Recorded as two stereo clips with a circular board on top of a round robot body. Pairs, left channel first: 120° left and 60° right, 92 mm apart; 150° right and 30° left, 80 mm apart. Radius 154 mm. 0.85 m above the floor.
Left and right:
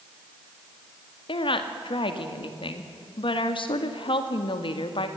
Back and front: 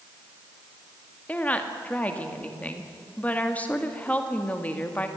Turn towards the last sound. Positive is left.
turn(degrees=140)